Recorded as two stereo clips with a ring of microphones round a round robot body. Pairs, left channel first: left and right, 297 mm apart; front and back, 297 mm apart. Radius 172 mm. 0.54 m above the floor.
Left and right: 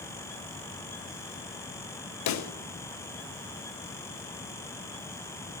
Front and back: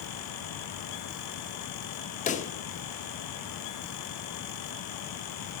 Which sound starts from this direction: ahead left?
A pop, at 2.3 s.